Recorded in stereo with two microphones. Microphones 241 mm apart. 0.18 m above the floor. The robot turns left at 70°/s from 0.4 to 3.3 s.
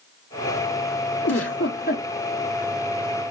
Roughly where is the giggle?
Left.